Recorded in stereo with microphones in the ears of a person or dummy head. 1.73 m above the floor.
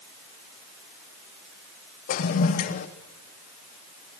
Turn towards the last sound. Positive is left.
turn(degrees=50)  # may be behind; listen again after turning